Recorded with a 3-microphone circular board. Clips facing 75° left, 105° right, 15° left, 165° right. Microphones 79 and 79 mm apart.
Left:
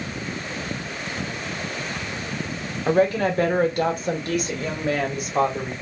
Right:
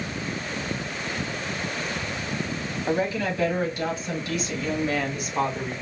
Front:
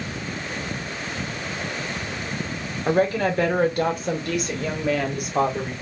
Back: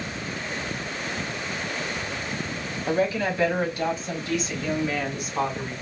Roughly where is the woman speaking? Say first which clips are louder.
Left 6 dB, front 4 dB; ahead left.